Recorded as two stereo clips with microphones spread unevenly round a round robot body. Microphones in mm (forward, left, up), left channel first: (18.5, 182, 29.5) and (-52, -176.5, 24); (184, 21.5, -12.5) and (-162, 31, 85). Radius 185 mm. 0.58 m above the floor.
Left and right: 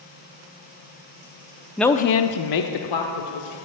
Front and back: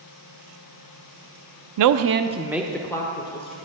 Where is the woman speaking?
175° left, 0.7 m; by 3.6 s 65° left, 2 m.